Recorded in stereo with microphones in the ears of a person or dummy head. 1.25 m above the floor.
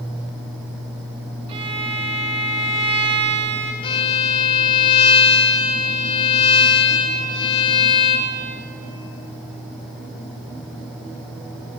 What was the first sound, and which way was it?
A violin, 35° right (ahead or behind).